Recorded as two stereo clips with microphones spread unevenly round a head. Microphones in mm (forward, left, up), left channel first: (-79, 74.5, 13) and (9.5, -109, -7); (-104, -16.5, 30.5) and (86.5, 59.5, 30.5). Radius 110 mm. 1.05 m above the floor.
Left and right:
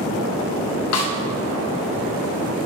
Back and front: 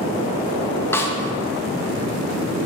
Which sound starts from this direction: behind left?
A snare drum, at 0.9 s.